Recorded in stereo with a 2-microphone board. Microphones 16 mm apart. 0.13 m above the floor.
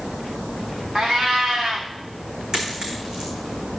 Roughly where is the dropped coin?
Right.